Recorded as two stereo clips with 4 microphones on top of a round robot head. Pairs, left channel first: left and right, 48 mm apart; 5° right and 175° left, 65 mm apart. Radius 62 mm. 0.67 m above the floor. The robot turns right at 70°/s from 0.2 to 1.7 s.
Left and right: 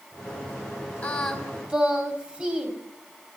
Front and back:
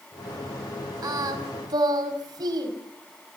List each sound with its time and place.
1.0 s singing: 150° left, 4.5 m; by 2.7 s 160° right, 4.5 m